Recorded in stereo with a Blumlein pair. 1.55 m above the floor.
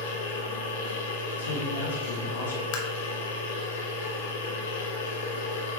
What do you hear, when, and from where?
0.0 s a machine running: 55° left, 1.3 m
1.4 s a man speaking: 70° left, 2 m
2.7 s tapping: 45° left, 1.1 m